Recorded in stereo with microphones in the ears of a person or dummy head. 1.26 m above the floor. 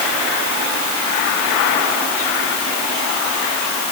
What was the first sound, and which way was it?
Only background noise.